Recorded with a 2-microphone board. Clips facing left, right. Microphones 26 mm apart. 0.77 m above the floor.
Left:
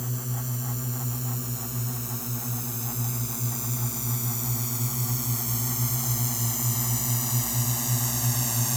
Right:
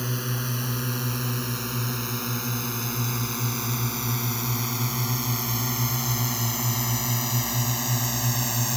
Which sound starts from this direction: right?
A drone, at 0.0 s.